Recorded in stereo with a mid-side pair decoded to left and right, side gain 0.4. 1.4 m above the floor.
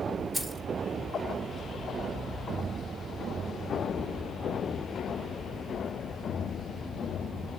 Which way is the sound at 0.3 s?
30° right.